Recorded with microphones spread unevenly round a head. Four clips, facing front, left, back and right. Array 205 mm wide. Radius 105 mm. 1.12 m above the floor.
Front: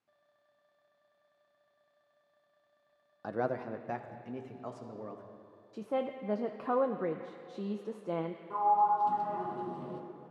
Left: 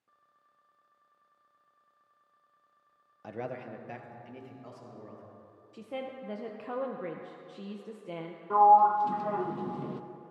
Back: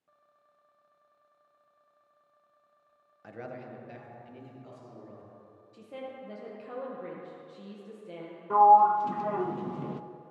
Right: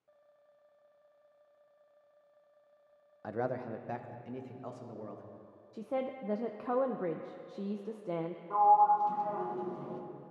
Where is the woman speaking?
10° right, 0.6 m.